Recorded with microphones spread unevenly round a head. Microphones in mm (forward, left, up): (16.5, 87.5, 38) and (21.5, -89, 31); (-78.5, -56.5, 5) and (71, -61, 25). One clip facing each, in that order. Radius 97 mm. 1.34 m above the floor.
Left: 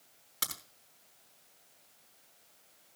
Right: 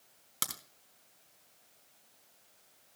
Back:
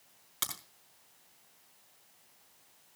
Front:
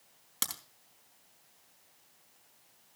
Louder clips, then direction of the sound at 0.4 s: Even, front 1 dB; 40° right.